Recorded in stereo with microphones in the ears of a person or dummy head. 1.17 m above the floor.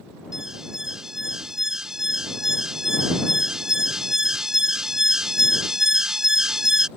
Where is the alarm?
5° right (ahead or behind).